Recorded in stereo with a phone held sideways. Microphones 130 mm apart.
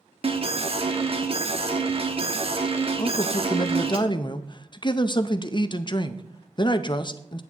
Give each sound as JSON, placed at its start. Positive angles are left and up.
{"t": 0.2, "sound": "an alarm", "side_deg": -45, "distance_m": 1.1}
{"t": 3.0, "sound": "a man speaking", "side_deg": 35, "distance_m": 0.5}